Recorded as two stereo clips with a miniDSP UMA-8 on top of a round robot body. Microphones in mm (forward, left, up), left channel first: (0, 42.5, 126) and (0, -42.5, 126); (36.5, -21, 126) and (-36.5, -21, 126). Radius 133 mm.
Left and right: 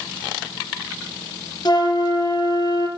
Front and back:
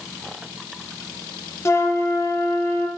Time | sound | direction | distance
1.6 | a flute | 50° left | 0.5 m